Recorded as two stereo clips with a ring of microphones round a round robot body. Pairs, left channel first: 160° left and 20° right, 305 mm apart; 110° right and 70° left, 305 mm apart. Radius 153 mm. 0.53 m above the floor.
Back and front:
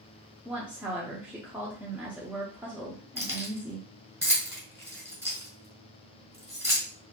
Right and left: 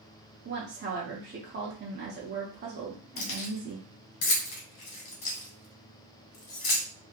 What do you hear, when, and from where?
0.5 s a woman speaking: 60° left, 0.7 m
3.2 s keys jangling: 105° right, 1.5 m